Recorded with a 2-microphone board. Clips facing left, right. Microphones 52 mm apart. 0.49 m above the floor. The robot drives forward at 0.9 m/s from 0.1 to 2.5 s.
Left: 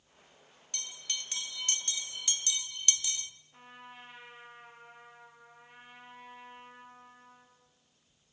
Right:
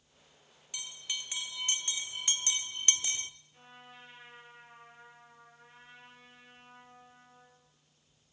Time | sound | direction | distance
0.7 | a bell | 10° right (ahead or behind) | 2 m
3.5 | a trumpet | 25° left (ahead or behind) | 8.5 m